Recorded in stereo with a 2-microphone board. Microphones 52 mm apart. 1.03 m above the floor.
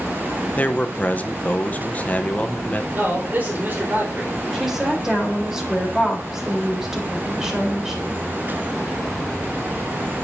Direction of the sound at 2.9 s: 40° right (ahead or behind).